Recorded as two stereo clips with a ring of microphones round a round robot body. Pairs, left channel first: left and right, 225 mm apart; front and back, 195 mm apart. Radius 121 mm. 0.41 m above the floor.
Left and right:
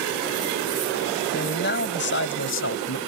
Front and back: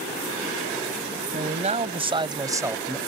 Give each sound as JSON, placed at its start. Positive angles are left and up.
{"t": 1.3, "sound": "a man speaking", "azimuth_deg": 135}